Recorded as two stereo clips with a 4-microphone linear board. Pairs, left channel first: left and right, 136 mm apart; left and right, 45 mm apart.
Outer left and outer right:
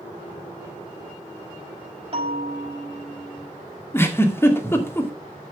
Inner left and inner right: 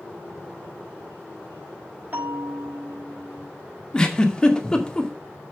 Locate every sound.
2.1 s a bell: 40° right (ahead or behind), 6 m
3.9 s a giggle: 15° left (ahead or behind), 2 m